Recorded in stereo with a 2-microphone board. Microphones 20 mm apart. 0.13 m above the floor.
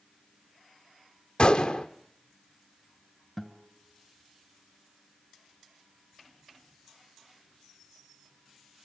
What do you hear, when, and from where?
1.4 s a gunshot: 45° left (ahead or behind), 1.2 m
3.4 s a guitar: 5° left (ahead or behind), 2 m